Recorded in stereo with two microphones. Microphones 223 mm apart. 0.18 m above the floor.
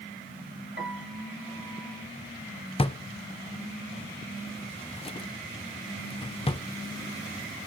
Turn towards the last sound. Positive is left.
turn(degrees=25)  # may be behind; listen again after turning